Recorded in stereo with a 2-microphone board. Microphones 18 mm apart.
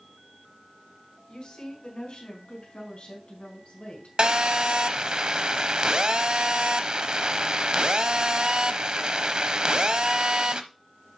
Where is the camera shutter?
I don't hear a camera shutter.